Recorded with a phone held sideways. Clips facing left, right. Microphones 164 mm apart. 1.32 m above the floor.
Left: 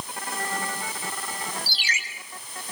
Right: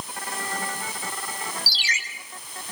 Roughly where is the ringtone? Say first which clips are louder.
Even; left.